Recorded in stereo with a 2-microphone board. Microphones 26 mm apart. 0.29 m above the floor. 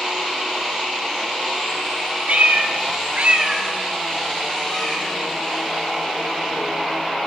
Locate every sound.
2.3 s a cat meowing: 60° right (ahead or behind), 0.8 m; by 7.0 s 15° left (ahead or behind), 3 m